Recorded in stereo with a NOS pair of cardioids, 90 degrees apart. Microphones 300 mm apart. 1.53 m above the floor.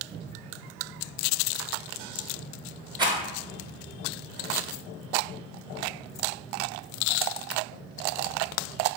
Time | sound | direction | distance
3.0 | a rattle | 15° right | 0.7 m